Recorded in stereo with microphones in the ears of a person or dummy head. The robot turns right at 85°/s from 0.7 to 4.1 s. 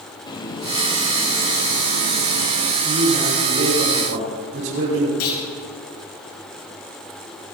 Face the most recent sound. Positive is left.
turn(degrees=80)